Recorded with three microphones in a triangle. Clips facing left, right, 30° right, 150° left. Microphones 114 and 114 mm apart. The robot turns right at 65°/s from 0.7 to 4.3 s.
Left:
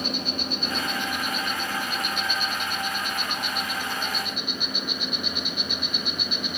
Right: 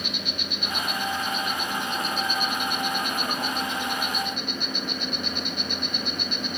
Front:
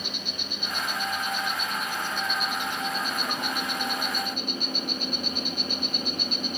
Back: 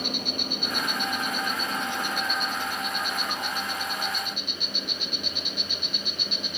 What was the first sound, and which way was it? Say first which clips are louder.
An insect: left 4 dB, back 6 dB; 135° left.